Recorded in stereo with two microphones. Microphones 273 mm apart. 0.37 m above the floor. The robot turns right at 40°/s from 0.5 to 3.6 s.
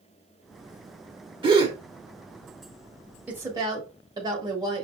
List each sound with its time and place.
1.4 s a gasp: 20° right (ahead or behind), 0.8 m
3.3 s a woman speaking: 5° right (ahead or behind), 1.2 m; by 4.8 s 15° right (ahead or behind), 1.2 m